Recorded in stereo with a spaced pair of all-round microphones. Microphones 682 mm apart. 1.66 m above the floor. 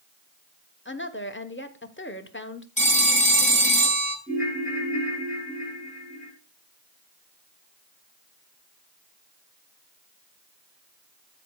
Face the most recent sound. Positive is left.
turn(degrees=10)  # may be behind; listen again after turning